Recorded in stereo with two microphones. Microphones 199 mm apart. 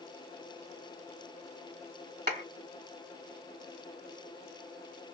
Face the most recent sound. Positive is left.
turn(degrees=-60)  # may be behind; listen again after turning